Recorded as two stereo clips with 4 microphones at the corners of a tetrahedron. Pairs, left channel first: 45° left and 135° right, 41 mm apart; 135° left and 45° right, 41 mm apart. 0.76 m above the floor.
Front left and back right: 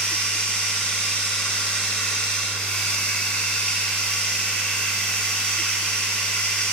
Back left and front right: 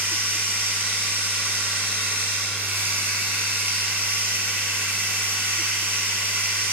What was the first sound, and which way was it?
Running water, 20° right.